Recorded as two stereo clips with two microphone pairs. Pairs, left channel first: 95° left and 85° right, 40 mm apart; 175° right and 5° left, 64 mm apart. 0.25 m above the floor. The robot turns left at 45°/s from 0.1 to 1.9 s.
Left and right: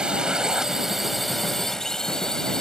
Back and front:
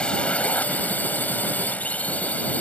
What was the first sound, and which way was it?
A drone, 120° right.